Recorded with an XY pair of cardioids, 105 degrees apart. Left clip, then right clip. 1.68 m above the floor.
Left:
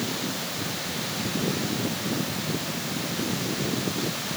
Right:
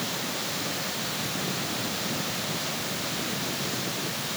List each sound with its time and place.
Only background noise.